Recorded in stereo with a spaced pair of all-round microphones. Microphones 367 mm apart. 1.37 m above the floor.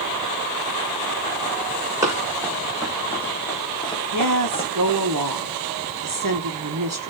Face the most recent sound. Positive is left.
turn(degrees=-55)  # may be behind; listen again after turning